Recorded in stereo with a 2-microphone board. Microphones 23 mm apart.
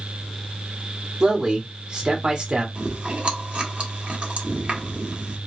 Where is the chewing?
50° right (ahead or behind), 1.5 m.